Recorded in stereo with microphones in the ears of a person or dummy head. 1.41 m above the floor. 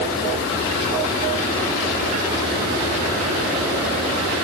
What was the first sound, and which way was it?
Only background noise.